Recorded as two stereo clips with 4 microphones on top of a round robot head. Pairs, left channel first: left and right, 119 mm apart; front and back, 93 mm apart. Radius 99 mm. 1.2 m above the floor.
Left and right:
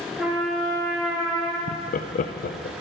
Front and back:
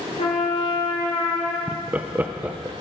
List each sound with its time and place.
0.2 s a trumpet: 5° right, 5 m
1.7 s laughter: 105° left, 0.5 m